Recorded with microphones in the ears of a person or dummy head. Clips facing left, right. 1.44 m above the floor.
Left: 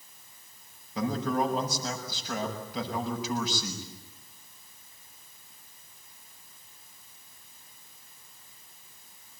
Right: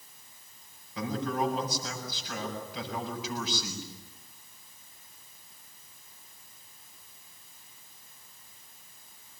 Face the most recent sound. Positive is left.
turn(degrees=40)  # may be behind; listen again after turning